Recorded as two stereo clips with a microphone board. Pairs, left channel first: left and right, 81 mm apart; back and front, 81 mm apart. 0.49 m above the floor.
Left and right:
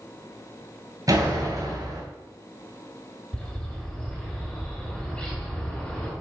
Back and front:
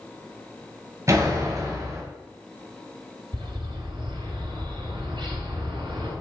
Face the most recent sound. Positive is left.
turn(degrees=10)